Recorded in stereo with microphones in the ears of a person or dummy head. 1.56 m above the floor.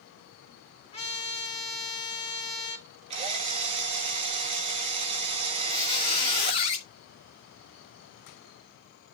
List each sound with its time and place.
0.9 s a trumpet: 30° left (ahead or behind), 2.5 m
3.1 s a drill: 30° right (ahead or behind), 1.3 m
5.7 s a squeak: 25° left (ahead or behind), 0.9 m